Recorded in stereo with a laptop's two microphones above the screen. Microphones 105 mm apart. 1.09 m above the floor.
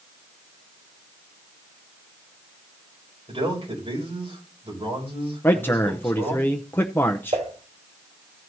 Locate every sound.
3.3 s a man speaking: 55° right (ahead or behind), 5.5 m
5.4 s a man speaking: 20° left (ahead or behind), 0.6 m
7.3 s dishes clattering: 80° right, 2.5 m